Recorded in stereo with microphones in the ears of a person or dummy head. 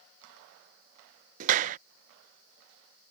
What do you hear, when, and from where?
1.4 s a clap: 40° right (ahead or behind)